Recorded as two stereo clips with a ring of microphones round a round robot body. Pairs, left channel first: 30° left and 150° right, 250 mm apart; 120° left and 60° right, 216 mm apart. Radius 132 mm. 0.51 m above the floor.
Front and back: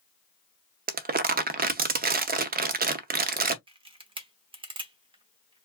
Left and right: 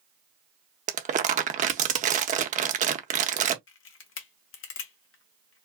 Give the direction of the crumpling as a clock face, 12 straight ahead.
4 o'clock.